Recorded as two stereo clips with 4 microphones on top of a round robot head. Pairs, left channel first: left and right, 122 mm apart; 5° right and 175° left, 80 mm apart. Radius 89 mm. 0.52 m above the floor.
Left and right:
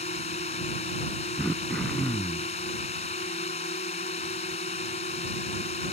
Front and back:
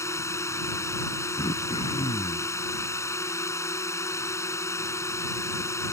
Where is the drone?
50° left.